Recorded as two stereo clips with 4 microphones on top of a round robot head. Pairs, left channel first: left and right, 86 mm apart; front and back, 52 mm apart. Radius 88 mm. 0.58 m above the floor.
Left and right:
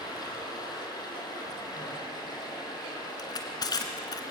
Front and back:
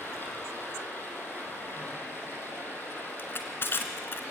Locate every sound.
0.0 s running water: 45° left, 5.5 m
3.2 s crushing: 45° left, 1.9 m